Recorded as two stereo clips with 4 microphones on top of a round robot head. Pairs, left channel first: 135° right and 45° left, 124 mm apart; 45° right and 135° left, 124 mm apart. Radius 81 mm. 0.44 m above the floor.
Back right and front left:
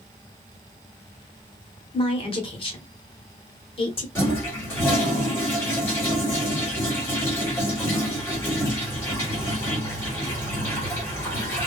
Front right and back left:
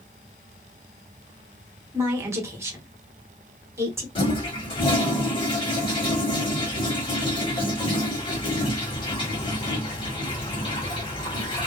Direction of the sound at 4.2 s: 70° right.